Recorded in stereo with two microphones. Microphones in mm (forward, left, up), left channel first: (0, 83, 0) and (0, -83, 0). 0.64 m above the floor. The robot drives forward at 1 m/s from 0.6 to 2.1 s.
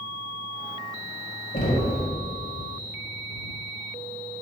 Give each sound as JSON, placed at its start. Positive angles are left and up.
{"t": 1.5, "sound": "knocking", "side_deg": 50, "distance_m": 1.7}